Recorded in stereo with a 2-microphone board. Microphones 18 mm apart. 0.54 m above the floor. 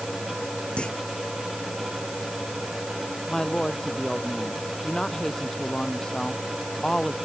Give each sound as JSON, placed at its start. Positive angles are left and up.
{"t": 0.8, "sound": "a clunk", "side_deg": 65}
{"t": 3.3, "sound": "a woman speaking", "side_deg": 35}